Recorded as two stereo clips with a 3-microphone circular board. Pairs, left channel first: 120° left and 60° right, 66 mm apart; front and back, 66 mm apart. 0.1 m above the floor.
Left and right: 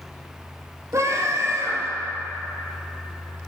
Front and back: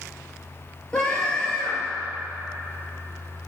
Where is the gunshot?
No gunshot in this recording.